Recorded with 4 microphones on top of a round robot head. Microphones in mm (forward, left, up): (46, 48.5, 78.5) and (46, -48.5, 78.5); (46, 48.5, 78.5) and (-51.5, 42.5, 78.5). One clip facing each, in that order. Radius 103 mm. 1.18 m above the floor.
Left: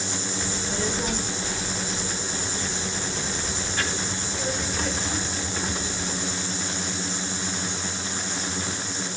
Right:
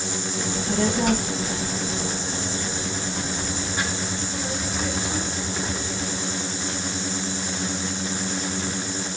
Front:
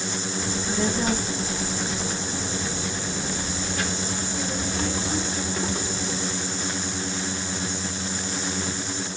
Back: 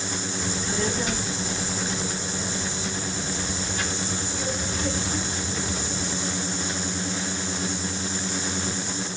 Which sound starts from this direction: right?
A child speaking, at 0.4 s.